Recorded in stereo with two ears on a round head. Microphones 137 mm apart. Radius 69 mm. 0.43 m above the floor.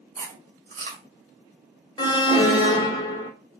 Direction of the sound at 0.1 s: 50° right (ahead or behind).